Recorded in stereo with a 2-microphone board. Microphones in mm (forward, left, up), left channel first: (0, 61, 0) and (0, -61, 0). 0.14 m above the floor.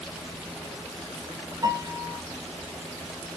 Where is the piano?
30° right (ahead or behind), 0.9 m.